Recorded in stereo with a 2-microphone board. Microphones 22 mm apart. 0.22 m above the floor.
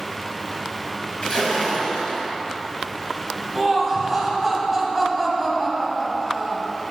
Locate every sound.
1.2 s a splash: 40° left (ahead or behind), 3 m
3.5 s laughter: 10° right (ahead or behind), 1.6 m